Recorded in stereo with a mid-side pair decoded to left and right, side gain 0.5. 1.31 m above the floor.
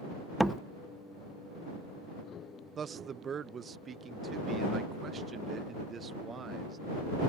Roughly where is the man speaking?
Ahead right.